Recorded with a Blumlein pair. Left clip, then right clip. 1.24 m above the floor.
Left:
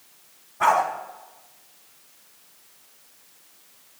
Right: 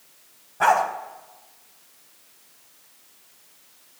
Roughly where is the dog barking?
Ahead.